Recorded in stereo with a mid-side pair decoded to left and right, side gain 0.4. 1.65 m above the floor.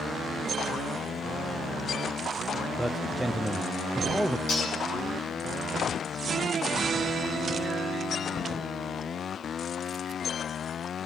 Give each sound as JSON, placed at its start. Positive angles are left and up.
{"t": 2.8, "sound": "a man speaking", "azimuth_deg": -10, "distance_m": 1.0}
{"t": 4.5, "sound": "cutlery clinking", "azimuth_deg": 60, "distance_m": 8.5}